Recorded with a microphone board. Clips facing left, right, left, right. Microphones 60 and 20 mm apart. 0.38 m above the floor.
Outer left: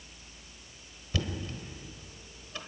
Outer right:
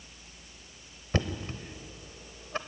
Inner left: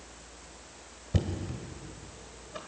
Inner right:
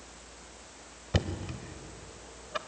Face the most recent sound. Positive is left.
turn(degrees=-45)  # may be behind; listen again after turning